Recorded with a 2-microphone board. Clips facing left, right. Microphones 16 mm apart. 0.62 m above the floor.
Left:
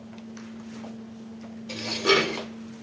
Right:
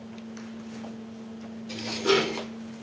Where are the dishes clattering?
30° left (ahead or behind), 1.1 m.